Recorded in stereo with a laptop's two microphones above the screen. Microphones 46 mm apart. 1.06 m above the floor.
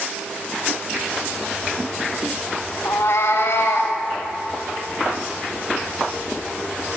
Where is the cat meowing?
70° left (ahead or behind), 1.8 m; by 4.0 s 60° left (ahead or behind), 1.9 m.